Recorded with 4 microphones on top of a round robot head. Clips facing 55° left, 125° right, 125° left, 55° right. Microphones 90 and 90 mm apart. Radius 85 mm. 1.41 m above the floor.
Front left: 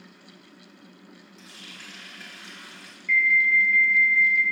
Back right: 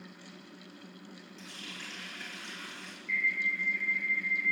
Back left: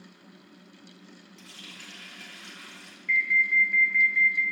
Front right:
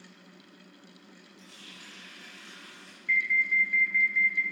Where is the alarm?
35° left, 4.5 m.